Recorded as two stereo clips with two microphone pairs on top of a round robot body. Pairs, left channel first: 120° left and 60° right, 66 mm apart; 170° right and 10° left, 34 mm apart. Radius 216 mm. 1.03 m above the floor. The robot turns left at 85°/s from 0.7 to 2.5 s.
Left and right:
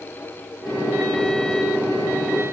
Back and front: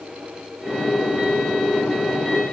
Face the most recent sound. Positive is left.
No sound to turn to.